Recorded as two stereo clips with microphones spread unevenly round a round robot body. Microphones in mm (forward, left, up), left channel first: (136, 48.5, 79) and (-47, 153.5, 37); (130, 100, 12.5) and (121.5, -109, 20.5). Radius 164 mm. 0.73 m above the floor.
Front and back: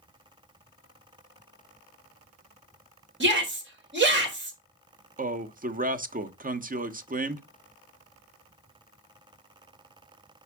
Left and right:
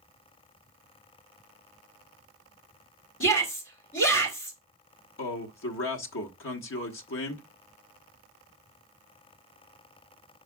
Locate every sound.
3.2 s a shout: 130° left, 3.5 m
5.2 s a man speaking: 105° left, 1.1 m